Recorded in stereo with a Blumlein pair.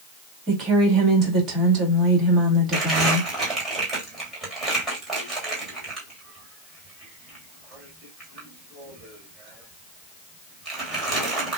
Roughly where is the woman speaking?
Ahead right.